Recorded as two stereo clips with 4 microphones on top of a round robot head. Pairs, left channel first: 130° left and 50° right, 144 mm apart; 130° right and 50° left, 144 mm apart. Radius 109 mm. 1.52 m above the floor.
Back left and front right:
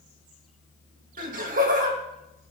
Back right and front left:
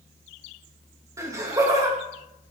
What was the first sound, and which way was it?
Laughter, 20° right.